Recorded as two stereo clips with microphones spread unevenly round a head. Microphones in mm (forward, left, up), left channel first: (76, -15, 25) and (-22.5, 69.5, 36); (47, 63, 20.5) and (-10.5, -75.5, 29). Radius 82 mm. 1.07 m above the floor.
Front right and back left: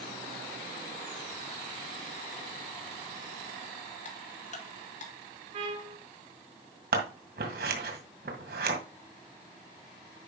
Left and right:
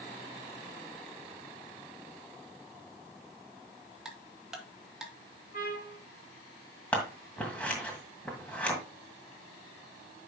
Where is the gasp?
No gasp in this recording.